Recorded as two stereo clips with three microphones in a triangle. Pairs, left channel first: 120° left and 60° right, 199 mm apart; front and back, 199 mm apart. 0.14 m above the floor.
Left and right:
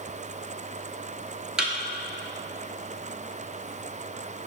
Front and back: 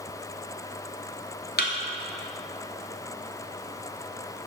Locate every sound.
1.6 s a thud: 25° left, 0.9 m